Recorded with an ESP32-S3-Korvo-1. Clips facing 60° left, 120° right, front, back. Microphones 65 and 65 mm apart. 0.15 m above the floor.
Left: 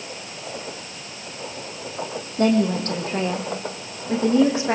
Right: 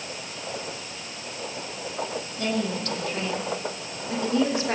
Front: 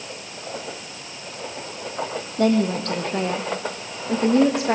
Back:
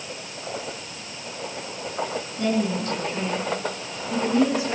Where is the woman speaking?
15° left, 4.5 m; by 4.8 s 10° right, 5.5 m.